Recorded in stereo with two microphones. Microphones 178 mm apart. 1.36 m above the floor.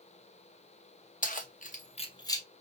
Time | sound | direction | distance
1.2 | keys jangling | 45° left (ahead or behind) | 0.8 m